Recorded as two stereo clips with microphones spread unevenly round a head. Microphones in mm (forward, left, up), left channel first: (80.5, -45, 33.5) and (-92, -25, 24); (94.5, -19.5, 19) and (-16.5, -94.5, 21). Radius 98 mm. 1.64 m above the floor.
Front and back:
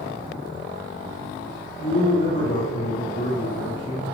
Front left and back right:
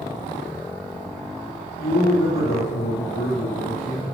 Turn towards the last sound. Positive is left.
turn(degrees=30)